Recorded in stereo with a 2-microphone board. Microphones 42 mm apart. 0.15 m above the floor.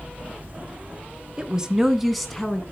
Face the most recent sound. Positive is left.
turn(degrees=15)  # may be behind; listen again after turning